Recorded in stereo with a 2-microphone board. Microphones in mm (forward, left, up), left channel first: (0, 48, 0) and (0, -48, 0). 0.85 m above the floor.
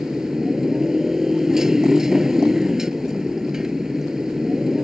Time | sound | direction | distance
0.0 | a motorcycle | 5° right (ahead or behind) | ?